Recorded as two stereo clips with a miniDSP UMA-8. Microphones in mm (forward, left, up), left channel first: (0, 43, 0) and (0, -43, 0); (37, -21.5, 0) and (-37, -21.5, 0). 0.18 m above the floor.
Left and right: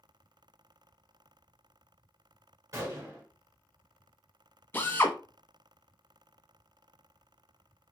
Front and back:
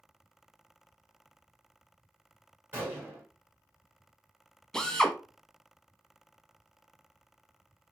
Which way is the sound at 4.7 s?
70° left.